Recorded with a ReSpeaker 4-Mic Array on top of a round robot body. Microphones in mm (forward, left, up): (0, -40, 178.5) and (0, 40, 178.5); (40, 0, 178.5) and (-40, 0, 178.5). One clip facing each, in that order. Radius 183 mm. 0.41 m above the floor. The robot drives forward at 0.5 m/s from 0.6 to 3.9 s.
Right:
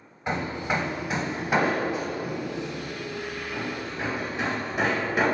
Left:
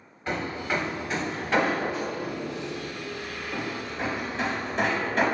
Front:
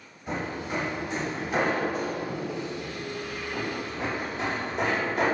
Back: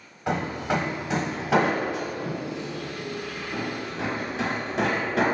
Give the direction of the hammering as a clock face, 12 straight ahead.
6 o'clock.